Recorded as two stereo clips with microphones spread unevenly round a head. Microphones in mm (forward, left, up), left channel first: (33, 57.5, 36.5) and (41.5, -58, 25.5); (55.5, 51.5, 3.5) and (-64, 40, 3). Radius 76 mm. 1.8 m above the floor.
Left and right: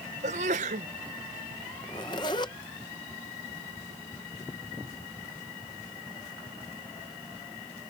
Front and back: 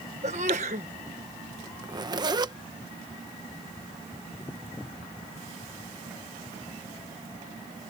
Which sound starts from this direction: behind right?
A sneeze, at 0.2 s.